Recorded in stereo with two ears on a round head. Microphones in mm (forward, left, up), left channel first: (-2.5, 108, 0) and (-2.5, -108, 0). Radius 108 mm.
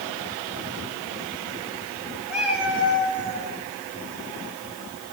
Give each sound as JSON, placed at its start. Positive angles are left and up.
{"t": 2.3, "sound": "a cat meowing", "side_deg": -5, "distance_m": 2.5}